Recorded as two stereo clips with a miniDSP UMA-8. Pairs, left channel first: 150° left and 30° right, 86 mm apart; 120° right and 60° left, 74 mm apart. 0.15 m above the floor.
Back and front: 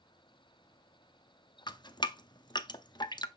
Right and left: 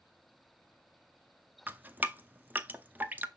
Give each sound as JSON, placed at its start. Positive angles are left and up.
{"t": 1.7, "sound": "dripping", "azimuth_deg": 125, "distance_m": 0.6}